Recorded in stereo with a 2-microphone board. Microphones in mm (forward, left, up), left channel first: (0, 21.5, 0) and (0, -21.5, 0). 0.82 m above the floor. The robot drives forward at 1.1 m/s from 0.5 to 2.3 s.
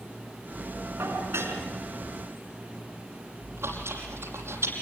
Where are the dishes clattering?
80° right, 5.5 m; by 1.6 s 75° right (ahead or behind), 6 m.